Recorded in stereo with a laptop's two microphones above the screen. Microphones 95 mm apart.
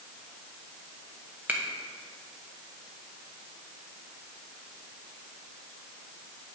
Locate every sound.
1.5 s a finger snap: 20° right (ahead or behind), 0.9 m